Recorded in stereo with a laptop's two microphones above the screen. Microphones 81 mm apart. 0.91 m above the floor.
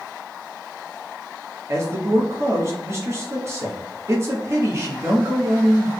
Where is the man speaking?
35° right (ahead or behind), 1.1 m.